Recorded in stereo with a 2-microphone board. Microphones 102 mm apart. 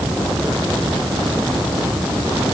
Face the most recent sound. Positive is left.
No sound to turn to.